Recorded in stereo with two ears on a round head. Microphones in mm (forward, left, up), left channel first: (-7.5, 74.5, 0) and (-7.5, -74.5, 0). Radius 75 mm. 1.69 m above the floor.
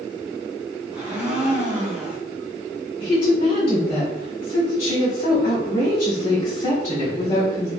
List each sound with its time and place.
0.9 s a blender: 15° right (ahead or behind), 1.4 m
3.0 s a woman speaking: 40° left (ahead or behind), 1.4 m